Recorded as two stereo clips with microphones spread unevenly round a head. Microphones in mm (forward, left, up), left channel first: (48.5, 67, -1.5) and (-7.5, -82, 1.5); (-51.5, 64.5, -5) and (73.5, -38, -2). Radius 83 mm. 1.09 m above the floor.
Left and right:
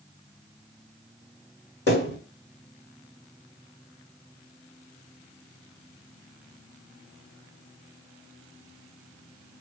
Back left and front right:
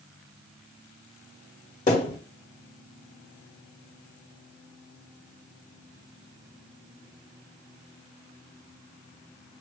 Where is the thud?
100° left, 2.0 m.